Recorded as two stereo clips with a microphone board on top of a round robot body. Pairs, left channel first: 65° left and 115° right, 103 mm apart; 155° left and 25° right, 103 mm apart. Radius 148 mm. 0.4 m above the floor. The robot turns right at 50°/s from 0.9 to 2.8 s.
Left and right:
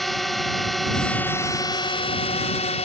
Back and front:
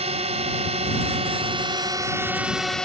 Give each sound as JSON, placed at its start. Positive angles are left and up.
{"t": 0.0, "sound": "a drone", "azimuth_deg": -20}